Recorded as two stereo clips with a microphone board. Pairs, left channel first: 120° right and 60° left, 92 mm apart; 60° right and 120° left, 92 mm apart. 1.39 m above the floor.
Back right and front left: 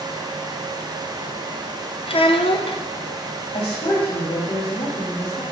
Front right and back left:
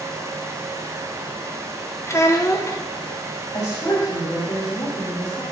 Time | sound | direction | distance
2.1 | a child speaking | 120° right | 0.7 m
3.5 | a woman speaking | 120° right | 2.5 m